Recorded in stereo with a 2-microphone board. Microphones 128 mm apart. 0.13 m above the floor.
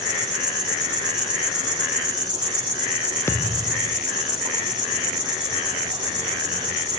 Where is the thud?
20° left (ahead or behind), 2.5 m.